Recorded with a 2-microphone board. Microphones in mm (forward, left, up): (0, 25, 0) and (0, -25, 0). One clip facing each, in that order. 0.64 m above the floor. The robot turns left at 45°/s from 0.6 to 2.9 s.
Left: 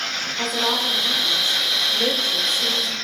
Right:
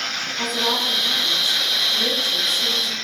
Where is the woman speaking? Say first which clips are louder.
Even; 175° left, 0.8 m; by 3.0 s 75° left, 0.8 m.